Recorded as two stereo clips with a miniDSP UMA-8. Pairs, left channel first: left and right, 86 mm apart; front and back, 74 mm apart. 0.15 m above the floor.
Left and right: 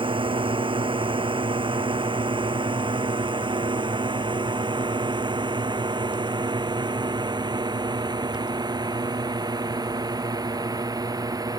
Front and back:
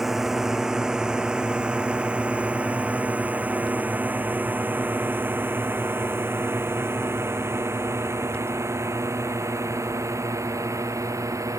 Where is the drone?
95° right; by 11.6 s 135° right.